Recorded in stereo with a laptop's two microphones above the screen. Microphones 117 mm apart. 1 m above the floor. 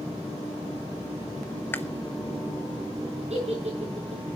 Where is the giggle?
65° right (ahead or behind), 7.5 m.